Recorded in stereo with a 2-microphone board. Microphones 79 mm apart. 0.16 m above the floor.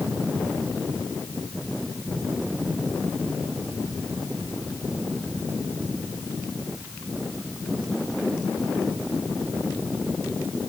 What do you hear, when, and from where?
Only background noise.